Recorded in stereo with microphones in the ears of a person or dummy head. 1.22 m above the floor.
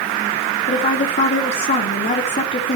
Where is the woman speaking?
45° left (ahead or behind), 3.5 m.